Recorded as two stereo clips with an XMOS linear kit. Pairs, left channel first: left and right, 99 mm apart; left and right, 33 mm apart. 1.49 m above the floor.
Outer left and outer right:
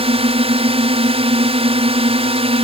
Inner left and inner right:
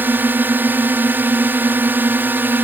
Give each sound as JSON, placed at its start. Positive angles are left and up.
{"t": 0.0, "sound": "a drone", "side_deg": -70}